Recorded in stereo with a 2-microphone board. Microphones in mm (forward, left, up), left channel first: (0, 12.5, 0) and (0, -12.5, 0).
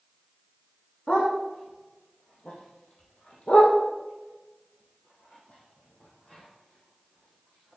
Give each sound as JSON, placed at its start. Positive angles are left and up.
{"t": 1.1, "sound": "a dog barking", "side_deg": 60, "distance_m": 3.5}